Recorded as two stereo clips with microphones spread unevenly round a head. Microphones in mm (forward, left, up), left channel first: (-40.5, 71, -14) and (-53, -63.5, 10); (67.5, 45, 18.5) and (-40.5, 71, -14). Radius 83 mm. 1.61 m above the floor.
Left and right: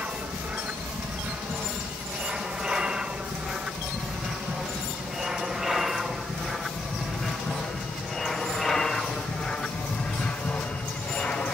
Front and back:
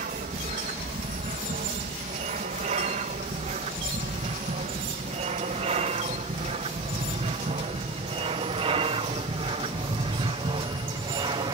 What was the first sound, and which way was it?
An aircraft, 175° right.